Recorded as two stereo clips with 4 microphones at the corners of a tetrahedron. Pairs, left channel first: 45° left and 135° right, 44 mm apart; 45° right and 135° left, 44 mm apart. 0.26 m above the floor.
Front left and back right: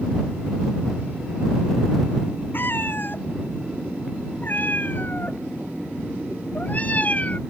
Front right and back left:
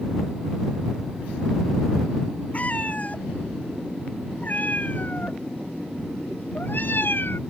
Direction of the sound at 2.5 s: 10° left.